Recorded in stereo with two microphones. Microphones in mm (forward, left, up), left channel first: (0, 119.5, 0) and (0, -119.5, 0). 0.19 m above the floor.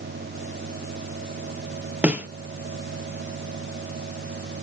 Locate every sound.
2.0 s a snare drum: 5° right (ahead or behind), 0.7 m